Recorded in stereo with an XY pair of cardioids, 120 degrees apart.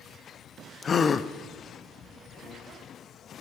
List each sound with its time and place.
0.8 s a gasp: 35° left, 0.5 m